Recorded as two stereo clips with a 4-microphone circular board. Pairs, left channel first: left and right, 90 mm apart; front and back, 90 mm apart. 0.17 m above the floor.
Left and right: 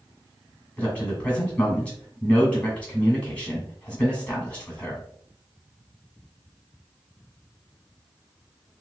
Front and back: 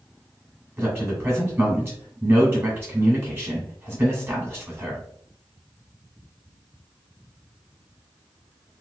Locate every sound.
0.8 s a man speaking: 150° left, 1.8 m